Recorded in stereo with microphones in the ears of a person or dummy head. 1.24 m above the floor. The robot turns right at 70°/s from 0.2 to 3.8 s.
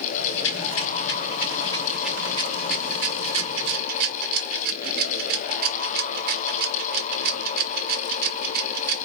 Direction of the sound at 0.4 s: 65° left (ahead or behind).